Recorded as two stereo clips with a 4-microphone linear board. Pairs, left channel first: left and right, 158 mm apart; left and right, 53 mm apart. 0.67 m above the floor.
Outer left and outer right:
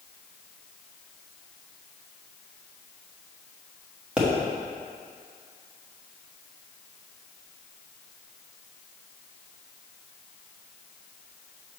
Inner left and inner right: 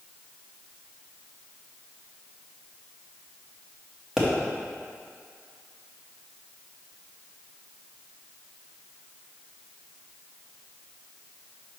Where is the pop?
5° right (ahead or behind), 1.3 m.